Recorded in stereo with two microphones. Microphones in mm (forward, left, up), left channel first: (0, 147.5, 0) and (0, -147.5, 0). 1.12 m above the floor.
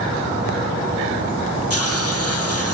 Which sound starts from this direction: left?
A hiss, at 1.7 s.